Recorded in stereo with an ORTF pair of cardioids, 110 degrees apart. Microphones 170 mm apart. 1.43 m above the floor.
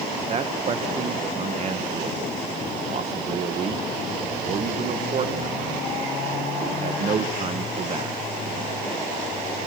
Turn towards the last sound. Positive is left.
turn(degrees=-40)